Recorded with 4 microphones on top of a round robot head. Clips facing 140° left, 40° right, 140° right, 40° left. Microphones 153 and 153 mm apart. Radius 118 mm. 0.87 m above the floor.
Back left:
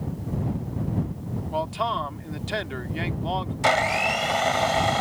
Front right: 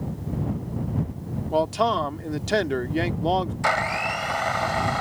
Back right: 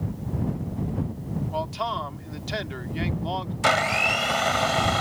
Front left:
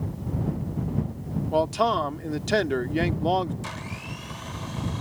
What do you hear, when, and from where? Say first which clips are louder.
1.5 s a man speaking: front right 6 dB, front left 9 dB; 5° left
3.6 s a blender: back left 3 dB, back right 13 dB; 155° right